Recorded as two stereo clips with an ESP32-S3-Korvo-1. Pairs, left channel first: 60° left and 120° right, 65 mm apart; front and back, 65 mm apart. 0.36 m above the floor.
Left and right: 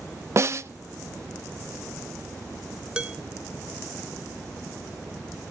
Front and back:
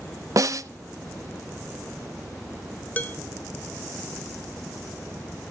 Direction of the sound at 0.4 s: 160° right.